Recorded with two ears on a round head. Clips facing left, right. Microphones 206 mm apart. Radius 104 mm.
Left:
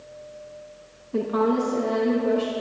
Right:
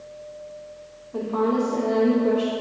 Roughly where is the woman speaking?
Left.